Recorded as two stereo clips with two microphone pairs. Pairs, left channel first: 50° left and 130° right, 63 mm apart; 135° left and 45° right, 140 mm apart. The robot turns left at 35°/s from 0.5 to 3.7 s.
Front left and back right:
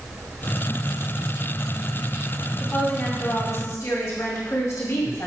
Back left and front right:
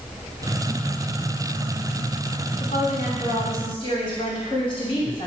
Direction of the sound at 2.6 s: 120° left.